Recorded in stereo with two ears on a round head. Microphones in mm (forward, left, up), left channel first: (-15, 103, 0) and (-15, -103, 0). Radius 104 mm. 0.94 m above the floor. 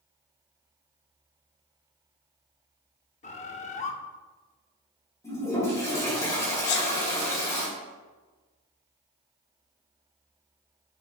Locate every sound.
3.2 s a bird: 30° left (ahead or behind), 0.6 m
5.2 s a toilet flushing: 15° left (ahead or behind), 3 m
6.7 s a sneeze: 50° left (ahead or behind), 1.0 m